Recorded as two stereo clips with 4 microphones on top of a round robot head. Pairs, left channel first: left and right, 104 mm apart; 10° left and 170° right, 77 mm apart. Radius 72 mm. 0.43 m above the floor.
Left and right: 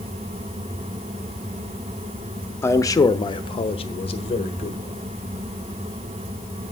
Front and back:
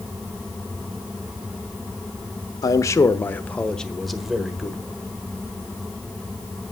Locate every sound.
2.6 s a man speaking: 30° left, 1.0 m; by 4.9 s 110° left, 1.7 m